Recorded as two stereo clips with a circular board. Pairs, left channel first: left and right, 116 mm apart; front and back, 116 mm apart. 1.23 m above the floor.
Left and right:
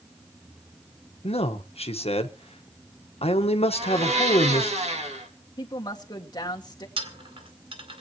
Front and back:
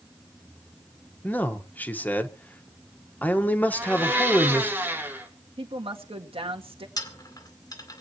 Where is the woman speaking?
145° left, 2 m.